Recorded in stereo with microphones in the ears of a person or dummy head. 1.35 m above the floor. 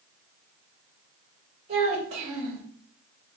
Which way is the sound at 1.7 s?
45° right (ahead or behind).